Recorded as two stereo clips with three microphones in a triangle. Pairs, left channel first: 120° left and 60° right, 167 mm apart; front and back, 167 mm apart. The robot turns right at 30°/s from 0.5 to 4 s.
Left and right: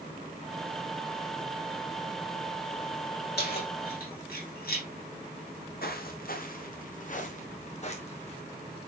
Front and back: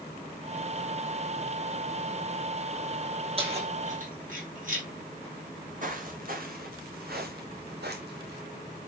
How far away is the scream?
I don't hear a scream.